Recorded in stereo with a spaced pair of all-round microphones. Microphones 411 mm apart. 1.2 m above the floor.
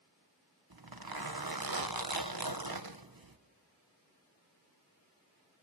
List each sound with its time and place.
0.7 s a zipper: 60° right (ahead or behind), 1.2 m